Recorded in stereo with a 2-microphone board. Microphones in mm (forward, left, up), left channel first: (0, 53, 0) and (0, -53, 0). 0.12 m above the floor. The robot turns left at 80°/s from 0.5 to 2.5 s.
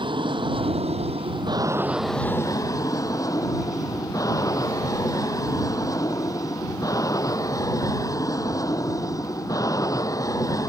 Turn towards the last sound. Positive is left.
turn(degrees=145)